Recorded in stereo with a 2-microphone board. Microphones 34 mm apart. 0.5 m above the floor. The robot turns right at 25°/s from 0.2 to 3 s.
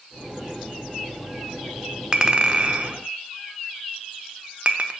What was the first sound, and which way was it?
A clink, 25° right (ahead or behind).